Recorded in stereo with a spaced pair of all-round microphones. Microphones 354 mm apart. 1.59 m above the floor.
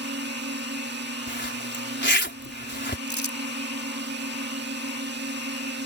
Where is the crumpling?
50° left (ahead or behind).